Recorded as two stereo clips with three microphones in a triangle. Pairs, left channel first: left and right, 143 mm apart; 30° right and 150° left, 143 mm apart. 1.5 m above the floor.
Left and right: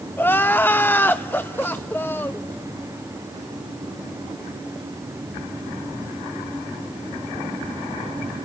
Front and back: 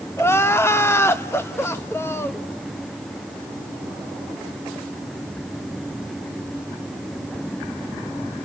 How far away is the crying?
About 0.8 m.